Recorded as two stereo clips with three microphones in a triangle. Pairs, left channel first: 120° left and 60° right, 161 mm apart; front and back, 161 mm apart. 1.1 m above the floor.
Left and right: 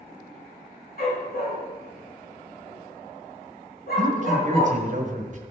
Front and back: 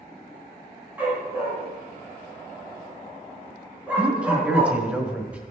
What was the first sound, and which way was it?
A dog barking, 100° left.